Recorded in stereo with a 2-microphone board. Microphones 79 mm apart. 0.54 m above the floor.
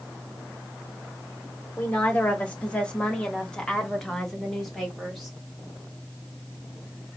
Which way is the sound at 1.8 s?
20° left (ahead or behind).